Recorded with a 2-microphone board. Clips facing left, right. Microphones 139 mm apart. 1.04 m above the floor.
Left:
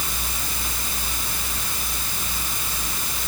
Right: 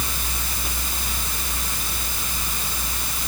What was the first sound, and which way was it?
Only background noise.